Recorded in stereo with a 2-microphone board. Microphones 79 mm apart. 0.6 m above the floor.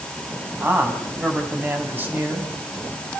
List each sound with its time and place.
0.6 s a man speaking: 25° right (ahead or behind), 5.5 m